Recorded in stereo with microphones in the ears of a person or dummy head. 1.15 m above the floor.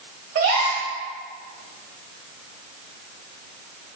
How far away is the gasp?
About 0.7 m.